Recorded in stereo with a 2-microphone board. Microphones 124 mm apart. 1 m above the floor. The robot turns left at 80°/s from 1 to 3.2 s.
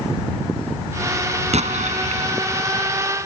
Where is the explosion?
65° right; by 2.3 s 130° right.